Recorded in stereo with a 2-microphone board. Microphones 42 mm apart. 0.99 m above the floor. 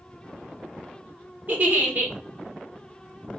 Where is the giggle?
40° right (ahead or behind), 1.0 m.